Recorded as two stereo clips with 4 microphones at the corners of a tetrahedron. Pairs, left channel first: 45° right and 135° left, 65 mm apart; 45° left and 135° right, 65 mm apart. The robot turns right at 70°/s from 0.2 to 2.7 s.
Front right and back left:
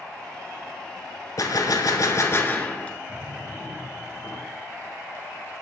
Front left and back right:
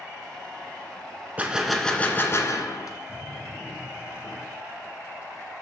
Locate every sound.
1.4 s a gunshot: 70° right, 1.0 m; by 3.0 s 25° left, 1.0 m
3.1 s a drawer: 15° right, 5 m